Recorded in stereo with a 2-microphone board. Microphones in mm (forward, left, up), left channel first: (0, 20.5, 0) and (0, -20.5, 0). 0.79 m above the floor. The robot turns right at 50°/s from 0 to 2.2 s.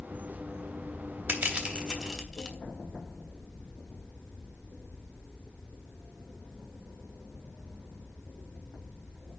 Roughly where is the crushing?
Right.